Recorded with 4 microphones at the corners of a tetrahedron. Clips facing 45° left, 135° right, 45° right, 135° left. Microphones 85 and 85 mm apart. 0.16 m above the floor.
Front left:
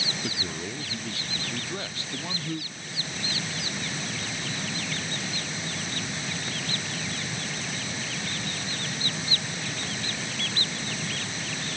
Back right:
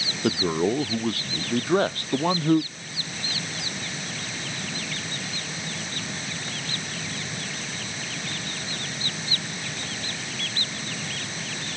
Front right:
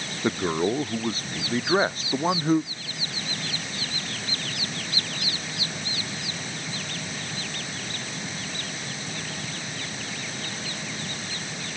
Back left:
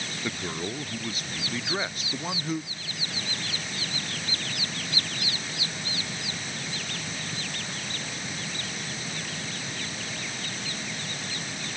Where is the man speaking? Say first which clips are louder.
Back right 11 dB, front right 10 dB; 100° right.